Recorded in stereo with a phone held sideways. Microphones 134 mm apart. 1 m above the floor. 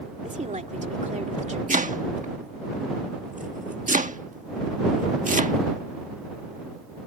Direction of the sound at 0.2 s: 60° right (ahead or behind).